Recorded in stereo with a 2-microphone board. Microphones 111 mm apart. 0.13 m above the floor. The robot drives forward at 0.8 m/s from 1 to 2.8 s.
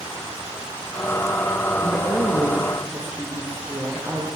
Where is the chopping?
I don't hear chopping.